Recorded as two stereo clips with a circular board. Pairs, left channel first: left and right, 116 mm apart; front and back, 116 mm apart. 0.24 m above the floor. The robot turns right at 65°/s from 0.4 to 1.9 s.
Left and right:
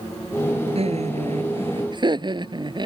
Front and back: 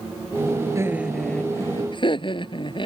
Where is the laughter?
120° right; by 2.9 s 45° right.